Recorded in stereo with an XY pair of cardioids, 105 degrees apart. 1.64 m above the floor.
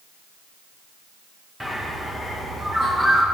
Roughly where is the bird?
Ahead.